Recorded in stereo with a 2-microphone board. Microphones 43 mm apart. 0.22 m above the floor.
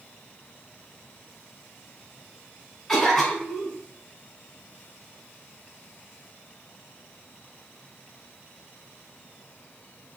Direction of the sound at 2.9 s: 10° left (ahead or behind).